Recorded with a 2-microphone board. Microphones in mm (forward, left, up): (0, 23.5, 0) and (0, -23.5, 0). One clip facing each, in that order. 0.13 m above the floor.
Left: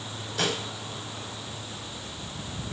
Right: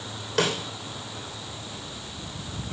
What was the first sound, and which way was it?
A snare drum, 85° right.